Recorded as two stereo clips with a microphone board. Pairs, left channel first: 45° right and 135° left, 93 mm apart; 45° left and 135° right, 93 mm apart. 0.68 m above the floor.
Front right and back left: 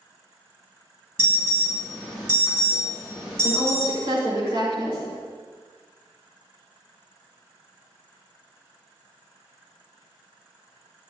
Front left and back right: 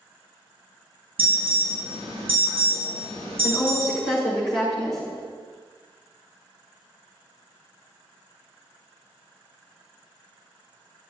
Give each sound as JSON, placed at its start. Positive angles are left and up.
{"t": 1.2, "sound": "an alarm", "azimuth_deg": -160, "distance_m": 5.5}
{"t": 3.4, "sound": "a woman speaking", "azimuth_deg": 135, "distance_m": 6.5}